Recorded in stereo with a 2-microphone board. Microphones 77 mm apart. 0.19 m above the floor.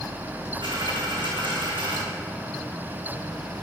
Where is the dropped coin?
85° right, 3 m.